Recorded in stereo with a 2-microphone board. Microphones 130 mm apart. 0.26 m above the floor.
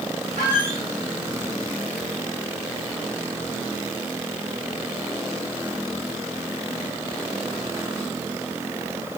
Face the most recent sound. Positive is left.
turn(degrees=-80)